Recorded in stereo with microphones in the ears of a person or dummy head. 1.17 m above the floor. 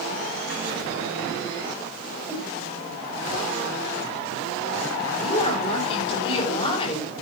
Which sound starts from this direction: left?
A woman speaking, at 5.1 s.